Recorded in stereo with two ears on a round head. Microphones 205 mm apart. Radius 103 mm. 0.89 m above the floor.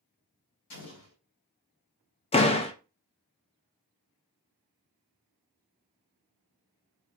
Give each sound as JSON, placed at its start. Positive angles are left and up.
{"t": 0.7, "sound": "an explosion", "side_deg": 85, "distance_m": 2.5}
{"t": 2.3, "sound": "a door slam", "side_deg": 25, "distance_m": 0.6}